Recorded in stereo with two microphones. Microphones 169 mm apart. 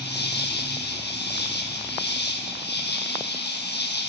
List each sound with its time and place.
0.0 s an insect: 80° left, 1.2 m